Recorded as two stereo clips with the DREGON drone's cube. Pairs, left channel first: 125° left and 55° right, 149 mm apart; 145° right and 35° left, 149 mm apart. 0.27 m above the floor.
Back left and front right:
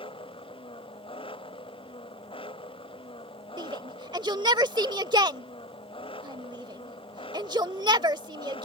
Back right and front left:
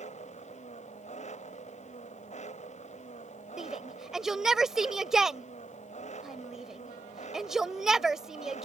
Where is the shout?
50° right.